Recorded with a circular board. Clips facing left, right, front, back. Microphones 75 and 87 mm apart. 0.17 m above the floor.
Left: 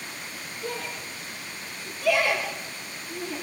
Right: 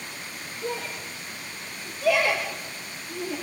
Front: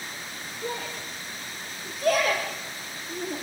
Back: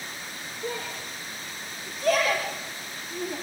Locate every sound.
0.6 s a shout: 35° right, 7 m